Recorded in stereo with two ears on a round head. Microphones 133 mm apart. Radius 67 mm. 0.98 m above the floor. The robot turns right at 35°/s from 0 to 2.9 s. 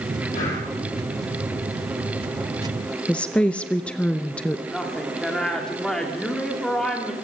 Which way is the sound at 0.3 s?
60° left (ahead or behind).